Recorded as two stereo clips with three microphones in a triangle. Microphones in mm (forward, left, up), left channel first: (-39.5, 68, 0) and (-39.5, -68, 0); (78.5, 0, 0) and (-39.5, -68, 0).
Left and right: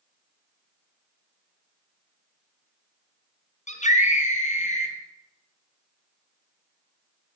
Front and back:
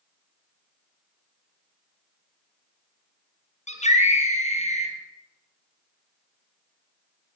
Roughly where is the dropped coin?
I don't hear a dropped coin.